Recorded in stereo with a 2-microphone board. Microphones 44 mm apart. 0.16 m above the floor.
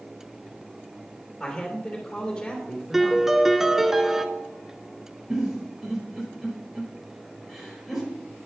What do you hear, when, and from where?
1.4 s a man speaking: 15° left (ahead or behind), 3 m
2.9 s a piano: 10° right (ahead or behind), 0.7 m
5.3 s a giggle: 10° right (ahead or behind), 4 m